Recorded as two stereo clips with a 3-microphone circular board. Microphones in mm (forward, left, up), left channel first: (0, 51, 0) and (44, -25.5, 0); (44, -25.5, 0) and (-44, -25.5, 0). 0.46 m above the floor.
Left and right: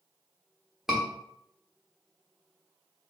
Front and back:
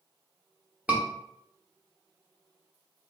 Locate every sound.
0.9 s a scream: 135° right, 0.9 m